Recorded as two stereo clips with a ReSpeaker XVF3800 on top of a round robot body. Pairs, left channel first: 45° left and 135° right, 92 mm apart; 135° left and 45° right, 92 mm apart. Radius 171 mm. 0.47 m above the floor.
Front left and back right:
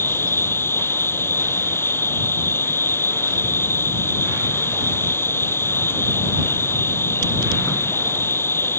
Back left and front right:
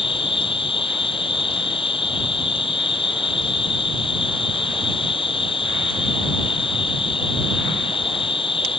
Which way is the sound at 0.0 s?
110° left.